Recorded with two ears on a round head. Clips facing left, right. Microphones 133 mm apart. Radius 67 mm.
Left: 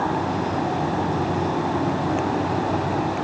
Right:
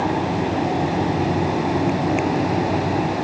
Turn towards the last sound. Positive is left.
No sound to turn to.